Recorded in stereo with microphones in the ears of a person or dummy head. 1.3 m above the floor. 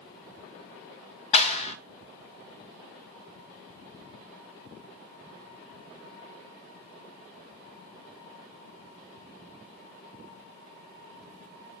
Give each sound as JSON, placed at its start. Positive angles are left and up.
{"t": 1.3, "sound": "a clap", "side_deg": 35, "distance_m": 1.4}